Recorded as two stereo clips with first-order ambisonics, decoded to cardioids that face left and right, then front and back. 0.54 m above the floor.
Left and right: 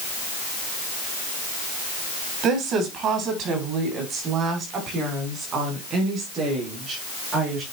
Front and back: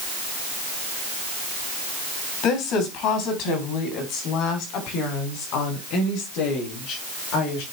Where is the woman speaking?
40° right, 3.5 m; by 7.6 s 25° right, 7 m.